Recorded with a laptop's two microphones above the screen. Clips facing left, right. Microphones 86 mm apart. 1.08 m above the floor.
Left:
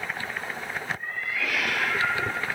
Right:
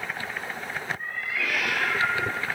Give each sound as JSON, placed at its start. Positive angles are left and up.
{"t": 1.0, "sound": "a cat meowing", "side_deg": -55, "distance_m": 3.0}